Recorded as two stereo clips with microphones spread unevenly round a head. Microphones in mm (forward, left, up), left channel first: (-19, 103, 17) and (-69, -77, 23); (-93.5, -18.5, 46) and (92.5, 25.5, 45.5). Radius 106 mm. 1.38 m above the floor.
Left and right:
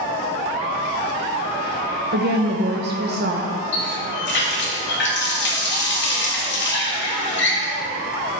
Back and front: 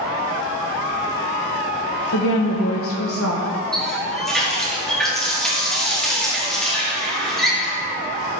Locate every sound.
2.1 s a woman speaking: 140° right, 0.9 m
3.7 s a running tap: 105° left, 2 m